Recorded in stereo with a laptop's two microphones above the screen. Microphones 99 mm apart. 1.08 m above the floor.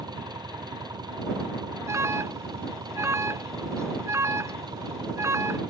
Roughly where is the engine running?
Right.